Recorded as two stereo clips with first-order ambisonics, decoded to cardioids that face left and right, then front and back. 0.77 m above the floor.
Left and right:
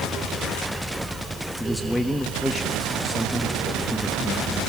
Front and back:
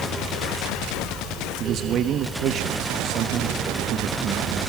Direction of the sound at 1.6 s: 175° left.